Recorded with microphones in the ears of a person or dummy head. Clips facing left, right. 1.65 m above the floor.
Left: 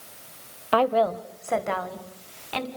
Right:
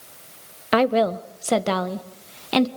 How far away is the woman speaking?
About 1.1 m.